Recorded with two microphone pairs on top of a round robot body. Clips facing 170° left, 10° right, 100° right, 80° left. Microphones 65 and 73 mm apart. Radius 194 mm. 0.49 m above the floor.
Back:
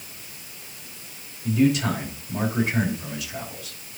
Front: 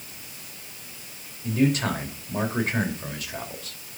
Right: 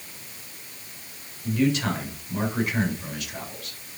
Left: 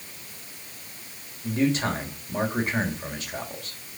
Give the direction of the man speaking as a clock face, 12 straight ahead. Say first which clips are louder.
Back 2 dB, right 1 dB; 11 o'clock.